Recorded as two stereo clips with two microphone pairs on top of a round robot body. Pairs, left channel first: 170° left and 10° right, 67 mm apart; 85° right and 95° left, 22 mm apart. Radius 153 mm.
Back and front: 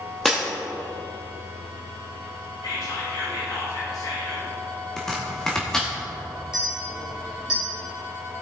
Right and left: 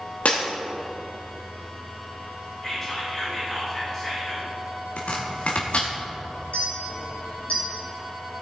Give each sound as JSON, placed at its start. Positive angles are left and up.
{"t": 0.2, "sound": "breaking glass", "azimuth_deg": -105, "distance_m": 1.0}
{"t": 2.6, "sound": "whispering", "azimuth_deg": -175, "distance_m": 4.0}
{"t": 5.0, "sound": "chopping", "azimuth_deg": -110, "distance_m": 1.1}
{"t": 6.5, "sound": "a clink", "azimuth_deg": -85, "distance_m": 3.5}